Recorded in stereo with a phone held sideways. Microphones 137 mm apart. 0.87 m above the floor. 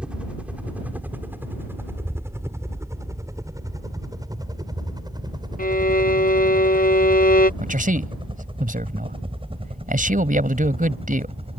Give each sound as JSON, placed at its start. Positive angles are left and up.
{"t": 0.0, "sound": "a helicopter", "side_deg": -10}
{"t": 5.6, "sound": "a violin", "side_deg": 80}
{"t": 7.6, "sound": "a man speaking", "side_deg": -75}